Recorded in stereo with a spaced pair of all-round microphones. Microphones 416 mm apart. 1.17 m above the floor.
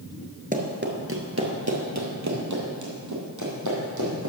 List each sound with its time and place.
0.5 s running footsteps: 20° right (ahead or behind), 1.2 m; by 4.3 s 45° right (ahead or behind), 3.5 m